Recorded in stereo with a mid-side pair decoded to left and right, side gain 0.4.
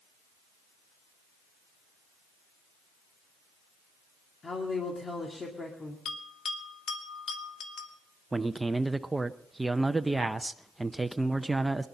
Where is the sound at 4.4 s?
35° left, 2 m.